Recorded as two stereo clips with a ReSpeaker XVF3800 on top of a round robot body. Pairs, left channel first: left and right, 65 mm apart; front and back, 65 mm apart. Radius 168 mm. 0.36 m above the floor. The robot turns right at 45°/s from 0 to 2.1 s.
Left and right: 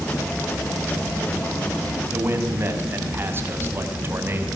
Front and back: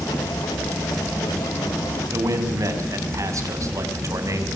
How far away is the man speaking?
About 5.5 m.